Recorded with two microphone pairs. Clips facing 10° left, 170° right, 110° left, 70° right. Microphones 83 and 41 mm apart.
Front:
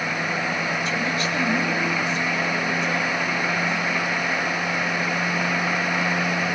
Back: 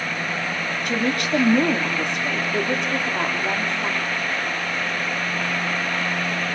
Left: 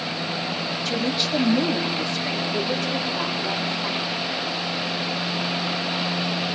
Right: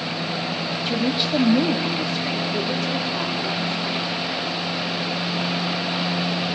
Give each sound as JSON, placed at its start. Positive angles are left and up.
{"t": 0.8, "sound": "a woman speaking", "azimuth_deg": -140, "distance_m": 3.0}